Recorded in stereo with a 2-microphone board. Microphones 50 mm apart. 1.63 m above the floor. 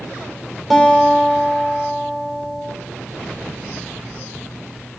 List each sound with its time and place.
0.7 s a guitar: centre (ahead or behind), 1.8 m